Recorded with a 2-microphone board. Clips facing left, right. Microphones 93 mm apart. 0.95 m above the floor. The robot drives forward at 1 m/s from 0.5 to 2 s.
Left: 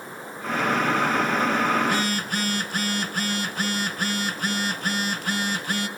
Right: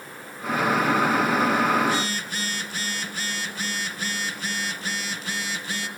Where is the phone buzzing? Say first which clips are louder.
Even; 50° left (ahead or behind), 1.3 m; by 5.9 s 55° left (ahead or behind), 1.3 m.